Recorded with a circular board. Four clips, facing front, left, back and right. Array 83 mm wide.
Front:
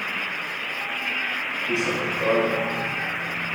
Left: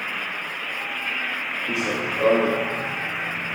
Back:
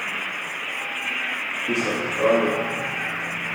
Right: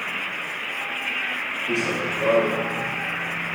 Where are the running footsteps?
165° left, 2.5 m; by 3.5 s 140° left, 2.5 m.